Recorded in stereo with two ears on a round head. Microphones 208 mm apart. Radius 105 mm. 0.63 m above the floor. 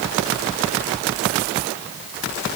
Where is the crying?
I don't hear crying.